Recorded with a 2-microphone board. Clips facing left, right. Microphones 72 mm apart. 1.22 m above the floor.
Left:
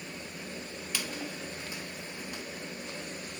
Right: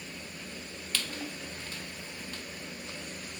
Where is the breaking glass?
No breaking glass in this recording.